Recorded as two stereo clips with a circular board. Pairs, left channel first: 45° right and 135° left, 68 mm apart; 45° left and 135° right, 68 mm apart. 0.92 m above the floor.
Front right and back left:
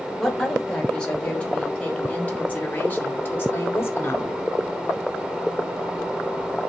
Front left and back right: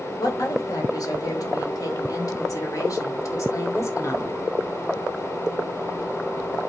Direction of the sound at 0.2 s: 35° left.